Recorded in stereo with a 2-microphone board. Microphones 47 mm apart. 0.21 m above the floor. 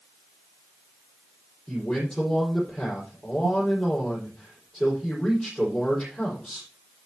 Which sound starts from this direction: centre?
A man speaking, at 1.7 s.